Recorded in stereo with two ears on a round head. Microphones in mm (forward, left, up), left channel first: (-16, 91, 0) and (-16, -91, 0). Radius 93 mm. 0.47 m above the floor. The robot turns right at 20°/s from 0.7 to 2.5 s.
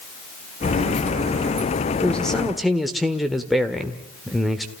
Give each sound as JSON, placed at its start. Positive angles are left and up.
{"t": 2.0, "sound": "a man speaking", "side_deg": 5, "distance_m": 1.4}